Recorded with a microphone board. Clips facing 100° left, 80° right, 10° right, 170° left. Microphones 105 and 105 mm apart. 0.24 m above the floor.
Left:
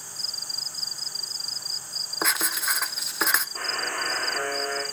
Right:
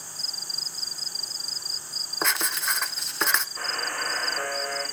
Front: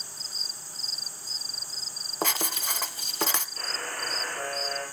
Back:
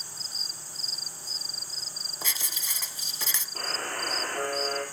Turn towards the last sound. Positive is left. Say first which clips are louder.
# left 1 dB, back 2 dB
turn(degrees=135)